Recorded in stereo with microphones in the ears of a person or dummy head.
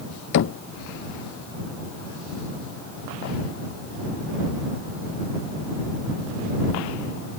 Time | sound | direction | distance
0.3 | knocking | 55° left (ahead or behind) | ?